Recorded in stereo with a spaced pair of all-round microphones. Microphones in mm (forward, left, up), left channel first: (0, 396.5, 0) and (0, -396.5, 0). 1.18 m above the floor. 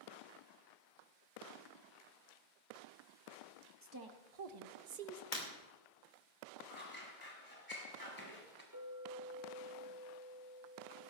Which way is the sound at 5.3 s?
80° left.